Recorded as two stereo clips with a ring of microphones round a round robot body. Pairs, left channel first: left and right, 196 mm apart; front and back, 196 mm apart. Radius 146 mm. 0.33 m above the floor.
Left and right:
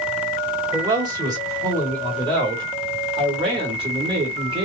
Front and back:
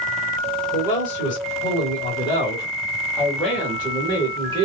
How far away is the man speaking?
About 2 m.